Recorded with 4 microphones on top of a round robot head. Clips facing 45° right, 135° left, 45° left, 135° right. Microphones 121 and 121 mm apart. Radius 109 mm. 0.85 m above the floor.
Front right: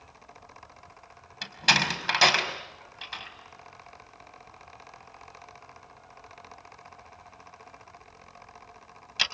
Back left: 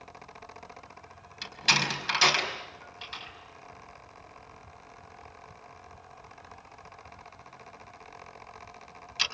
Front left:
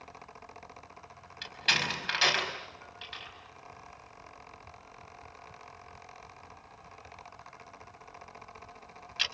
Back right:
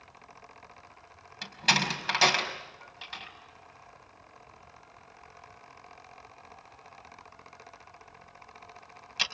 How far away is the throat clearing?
No throat clearing in this recording.